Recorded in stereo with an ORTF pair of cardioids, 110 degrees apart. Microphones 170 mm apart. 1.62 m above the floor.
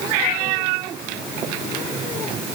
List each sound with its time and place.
Only background noise.